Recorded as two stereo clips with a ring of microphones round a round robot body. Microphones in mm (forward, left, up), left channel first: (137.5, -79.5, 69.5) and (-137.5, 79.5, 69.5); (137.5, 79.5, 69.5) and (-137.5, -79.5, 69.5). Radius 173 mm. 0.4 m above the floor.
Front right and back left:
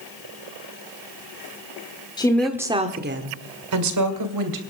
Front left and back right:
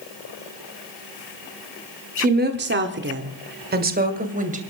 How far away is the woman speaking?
About 1.6 m.